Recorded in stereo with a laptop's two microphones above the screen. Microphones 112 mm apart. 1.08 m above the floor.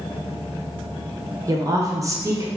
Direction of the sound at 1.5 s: 30° right (ahead or behind).